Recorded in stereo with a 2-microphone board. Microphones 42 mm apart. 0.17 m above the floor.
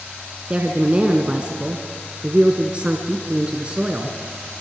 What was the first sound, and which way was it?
A woman speaking, 25° right (ahead or behind).